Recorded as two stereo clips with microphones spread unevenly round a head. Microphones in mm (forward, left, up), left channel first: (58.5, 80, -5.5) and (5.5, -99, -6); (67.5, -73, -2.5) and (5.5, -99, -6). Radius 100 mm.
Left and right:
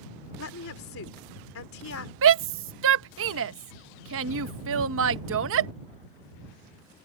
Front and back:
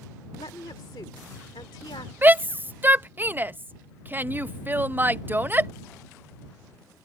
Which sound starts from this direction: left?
A woman speaking, at 0.4 s.